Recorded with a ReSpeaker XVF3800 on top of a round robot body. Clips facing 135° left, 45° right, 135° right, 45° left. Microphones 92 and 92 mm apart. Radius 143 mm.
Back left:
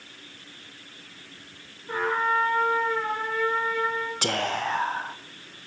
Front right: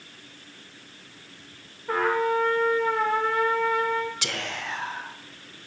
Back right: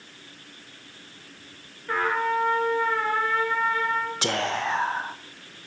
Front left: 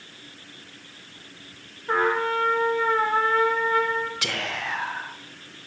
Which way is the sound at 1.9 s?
20° right.